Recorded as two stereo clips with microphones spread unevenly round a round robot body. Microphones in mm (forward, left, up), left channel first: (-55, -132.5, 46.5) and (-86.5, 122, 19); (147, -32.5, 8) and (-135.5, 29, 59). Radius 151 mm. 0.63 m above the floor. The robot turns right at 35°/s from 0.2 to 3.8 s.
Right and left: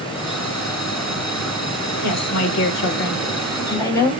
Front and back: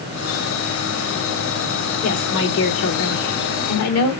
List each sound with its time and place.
2.0 s a woman speaking: 65° right, 2 m; by 4.1 s 5° right, 2 m